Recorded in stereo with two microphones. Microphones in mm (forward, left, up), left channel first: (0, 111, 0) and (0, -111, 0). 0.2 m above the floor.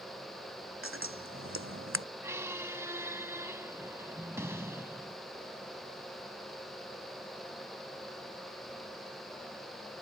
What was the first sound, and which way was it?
Scissors, 70° right (ahead or behind).